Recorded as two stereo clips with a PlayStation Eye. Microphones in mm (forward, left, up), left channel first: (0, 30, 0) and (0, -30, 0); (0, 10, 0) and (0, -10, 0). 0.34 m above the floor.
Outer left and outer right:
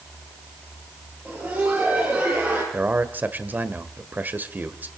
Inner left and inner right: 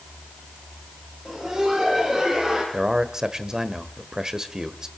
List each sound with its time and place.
1.2 s laughter: 25° right (ahead or behind), 6.5 m; by 2.6 s 30° right (ahead or behind), 7 m
2.7 s a man speaking: 30° right (ahead or behind), 1.4 m